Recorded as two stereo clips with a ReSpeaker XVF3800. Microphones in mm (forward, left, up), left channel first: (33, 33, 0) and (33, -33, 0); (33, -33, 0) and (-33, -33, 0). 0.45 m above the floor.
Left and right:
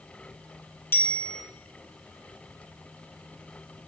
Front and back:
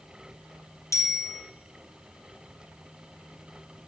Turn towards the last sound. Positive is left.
turn(degrees=35)